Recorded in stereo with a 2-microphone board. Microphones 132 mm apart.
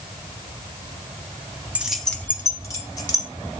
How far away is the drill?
I don't hear a drill.